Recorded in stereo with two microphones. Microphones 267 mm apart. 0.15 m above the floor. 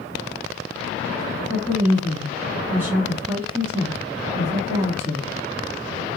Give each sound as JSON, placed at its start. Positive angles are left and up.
{"t": 1.5, "sound": "a woman speaking", "side_deg": -10, "distance_m": 1.7}